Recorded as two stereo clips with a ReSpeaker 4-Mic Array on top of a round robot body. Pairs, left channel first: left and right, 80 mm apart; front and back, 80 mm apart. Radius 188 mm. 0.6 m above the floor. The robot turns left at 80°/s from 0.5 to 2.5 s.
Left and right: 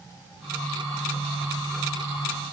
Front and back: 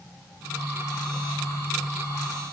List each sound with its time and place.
Only background noise.